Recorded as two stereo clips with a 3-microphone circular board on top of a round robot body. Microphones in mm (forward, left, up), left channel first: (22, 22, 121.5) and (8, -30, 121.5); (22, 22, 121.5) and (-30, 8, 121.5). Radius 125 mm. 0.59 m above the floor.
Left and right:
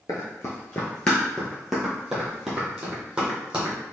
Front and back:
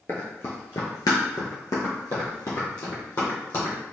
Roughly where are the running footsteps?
Ahead left.